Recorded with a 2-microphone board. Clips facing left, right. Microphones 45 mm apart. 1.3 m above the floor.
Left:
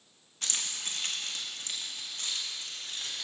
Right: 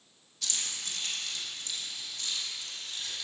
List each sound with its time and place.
0.4 s keys jangling: 35° left (ahead or behind), 1.3 m; by 3.2 s 40° left (ahead or behind), 3 m